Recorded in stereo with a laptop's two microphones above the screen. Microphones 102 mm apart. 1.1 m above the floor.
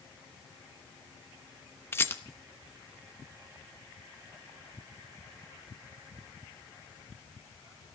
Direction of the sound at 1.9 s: 25° left (ahead or behind).